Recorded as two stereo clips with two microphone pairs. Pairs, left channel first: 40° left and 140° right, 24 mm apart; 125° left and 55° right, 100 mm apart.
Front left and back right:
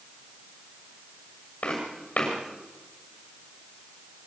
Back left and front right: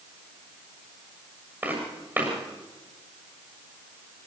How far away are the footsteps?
About 7.5 m.